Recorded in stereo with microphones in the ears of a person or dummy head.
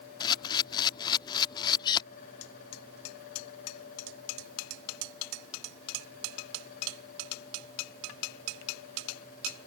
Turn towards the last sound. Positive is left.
turn(degrees=25)  # may be behind; listen again after turning